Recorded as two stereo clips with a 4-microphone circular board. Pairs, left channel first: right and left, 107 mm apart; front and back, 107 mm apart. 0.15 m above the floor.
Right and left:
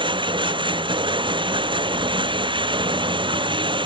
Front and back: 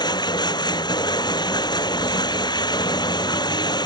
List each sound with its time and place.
0.0 s running water: 50° left